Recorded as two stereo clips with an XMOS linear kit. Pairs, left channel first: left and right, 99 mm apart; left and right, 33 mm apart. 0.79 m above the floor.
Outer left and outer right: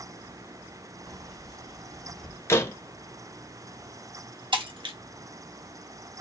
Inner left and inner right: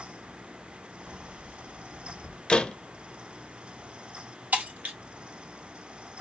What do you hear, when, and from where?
1.1 s keys jangling: 70° right (ahead or behind), 2 m; by 2.4 s 75° right (ahead or behind), 1.4 m
2.5 s a door slam: 25° left (ahead or behind), 0.6 m
4.5 s breaking glass: 55° right (ahead or behind), 1.1 m